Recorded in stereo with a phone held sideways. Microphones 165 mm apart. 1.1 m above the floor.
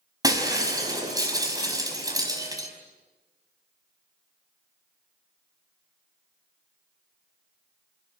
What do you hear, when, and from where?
0.2 s breaking glass: 25° right (ahead or behind), 5 m